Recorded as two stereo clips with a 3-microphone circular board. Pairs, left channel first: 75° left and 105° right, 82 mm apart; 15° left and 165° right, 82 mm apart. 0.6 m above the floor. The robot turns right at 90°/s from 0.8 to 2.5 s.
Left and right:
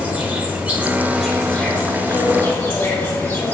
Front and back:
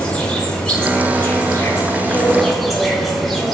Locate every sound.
0.0 s an insect: 55° right, 2.0 m; by 3.5 s 100° left, 2.0 m